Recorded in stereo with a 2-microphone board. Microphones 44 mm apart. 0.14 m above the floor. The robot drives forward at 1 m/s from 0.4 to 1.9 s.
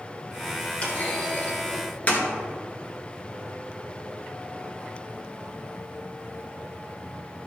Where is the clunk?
25° left (ahead or behind), 3 m; by 2.2 s 35° left (ahead or behind), 2 m.